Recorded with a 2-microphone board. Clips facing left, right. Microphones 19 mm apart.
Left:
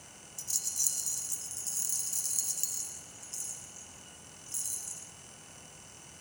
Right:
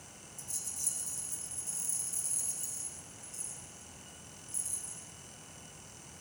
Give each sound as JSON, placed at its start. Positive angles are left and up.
{"t": 0.4, "sound": "a rattle", "side_deg": 55, "distance_m": 0.8}